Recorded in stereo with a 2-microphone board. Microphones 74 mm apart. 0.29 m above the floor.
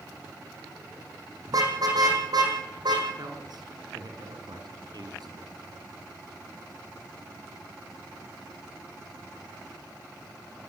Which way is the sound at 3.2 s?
70° right (ahead or behind).